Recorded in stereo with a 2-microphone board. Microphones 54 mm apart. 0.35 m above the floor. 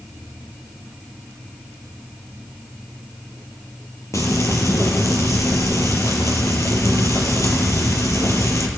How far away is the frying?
About 5 m.